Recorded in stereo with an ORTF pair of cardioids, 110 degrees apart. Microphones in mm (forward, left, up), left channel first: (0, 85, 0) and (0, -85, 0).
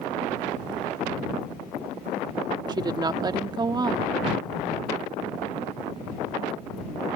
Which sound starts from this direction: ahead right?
A woman speaking, at 2.7 s.